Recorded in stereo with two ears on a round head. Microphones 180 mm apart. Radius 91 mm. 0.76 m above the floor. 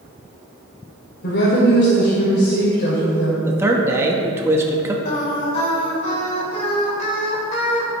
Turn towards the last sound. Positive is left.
turn(degrees=30)  # may be behind; listen again after turning